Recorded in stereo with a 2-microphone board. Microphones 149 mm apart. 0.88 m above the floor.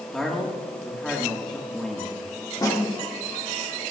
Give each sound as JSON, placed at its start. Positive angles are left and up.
{"t": 0.1, "sound": "a man speaking", "side_deg": 5, "distance_m": 1.4}
{"t": 2.6, "sound": "a snare drum", "side_deg": 25, "distance_m": 1.6}